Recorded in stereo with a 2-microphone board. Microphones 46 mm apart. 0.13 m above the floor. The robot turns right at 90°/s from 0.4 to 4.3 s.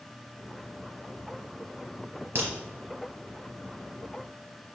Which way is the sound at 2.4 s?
60° right (ahead or behind).